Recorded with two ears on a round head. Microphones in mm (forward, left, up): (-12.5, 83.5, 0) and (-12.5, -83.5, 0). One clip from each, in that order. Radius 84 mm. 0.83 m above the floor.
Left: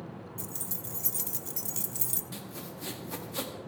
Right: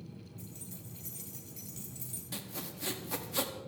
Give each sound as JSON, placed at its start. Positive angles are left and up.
{"t": 0.4, "sound": "keys jangling", "side_deg": 55, "distance_m": 0.9}
{"t": 2.3, "sound": "sawing", "side_deg": -10, "distance_m": 1.3}